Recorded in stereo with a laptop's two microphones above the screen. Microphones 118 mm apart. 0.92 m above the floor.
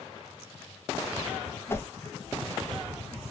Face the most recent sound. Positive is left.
turn(degrees=20)  # may be behind; listen again after turning